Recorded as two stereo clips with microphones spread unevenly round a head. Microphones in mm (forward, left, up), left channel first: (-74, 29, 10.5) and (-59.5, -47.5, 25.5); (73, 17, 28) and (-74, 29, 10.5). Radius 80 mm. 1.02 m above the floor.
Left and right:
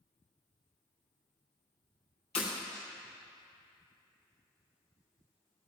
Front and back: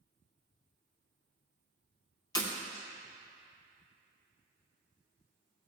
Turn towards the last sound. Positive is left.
turn(degrees=55)